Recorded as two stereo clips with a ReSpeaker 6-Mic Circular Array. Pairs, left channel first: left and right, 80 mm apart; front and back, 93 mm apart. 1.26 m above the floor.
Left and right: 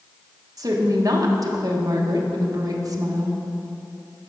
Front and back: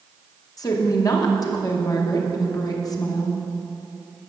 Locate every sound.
0.6 s a woman speaking: 45° right, 1.0 m